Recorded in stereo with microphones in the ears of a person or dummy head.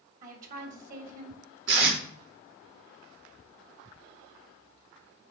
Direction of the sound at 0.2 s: 45° right (ahead or behind).